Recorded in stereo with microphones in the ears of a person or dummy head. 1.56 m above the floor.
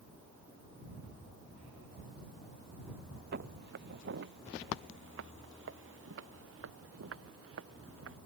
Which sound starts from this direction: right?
Footsteps, at 3.3 s.